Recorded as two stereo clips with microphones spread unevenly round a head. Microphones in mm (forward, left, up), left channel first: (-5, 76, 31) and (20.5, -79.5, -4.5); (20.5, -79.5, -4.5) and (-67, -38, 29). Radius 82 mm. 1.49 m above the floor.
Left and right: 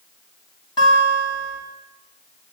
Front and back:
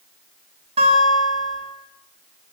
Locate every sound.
0.8 s a guitar: 160° left, 8 m